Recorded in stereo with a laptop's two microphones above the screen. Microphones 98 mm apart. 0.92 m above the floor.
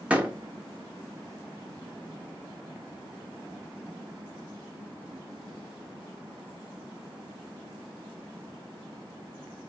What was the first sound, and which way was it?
A door slam, 10° right (ahead or behind).